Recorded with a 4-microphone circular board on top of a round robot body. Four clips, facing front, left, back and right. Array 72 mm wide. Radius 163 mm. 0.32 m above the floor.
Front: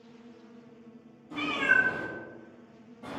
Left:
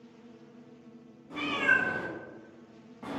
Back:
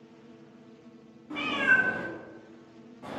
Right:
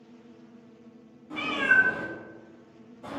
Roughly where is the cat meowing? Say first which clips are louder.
Right 4 dB, back 1 dB; behind.